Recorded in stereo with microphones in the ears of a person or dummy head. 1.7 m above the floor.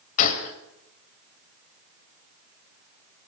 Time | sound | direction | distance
0.2 | a gunshot | 45° left (ahead or behind) | 2.5 m